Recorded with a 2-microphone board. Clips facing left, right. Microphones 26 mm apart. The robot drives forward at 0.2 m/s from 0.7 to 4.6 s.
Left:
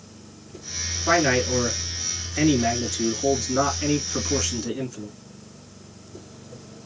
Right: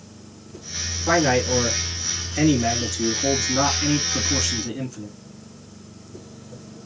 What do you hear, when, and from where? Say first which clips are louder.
1.1 s a man speaking: right 1 dB; 5° left (ahead or behind), 1.8 m